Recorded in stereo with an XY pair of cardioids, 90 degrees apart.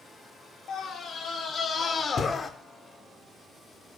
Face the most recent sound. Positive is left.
turn(degrees=40)